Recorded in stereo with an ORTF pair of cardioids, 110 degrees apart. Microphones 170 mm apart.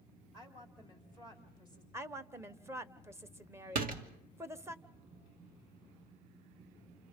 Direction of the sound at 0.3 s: 30° right.